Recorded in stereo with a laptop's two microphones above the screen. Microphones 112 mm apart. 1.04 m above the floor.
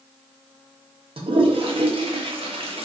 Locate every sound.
1.2 s a toilet flushing: 55° right (ahead or behind), 0.9 m